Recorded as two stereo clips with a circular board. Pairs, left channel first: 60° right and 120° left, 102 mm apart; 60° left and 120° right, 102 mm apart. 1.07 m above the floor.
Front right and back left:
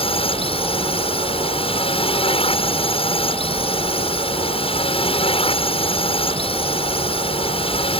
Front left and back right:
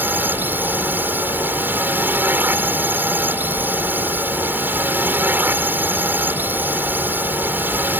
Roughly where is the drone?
Ahead right.